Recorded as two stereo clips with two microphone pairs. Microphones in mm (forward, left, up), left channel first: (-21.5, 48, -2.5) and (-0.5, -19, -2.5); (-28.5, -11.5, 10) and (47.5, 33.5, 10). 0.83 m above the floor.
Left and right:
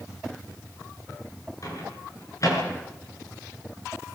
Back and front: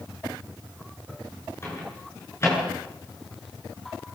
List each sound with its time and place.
1.6 s a microwave: 150° left, 8.5 m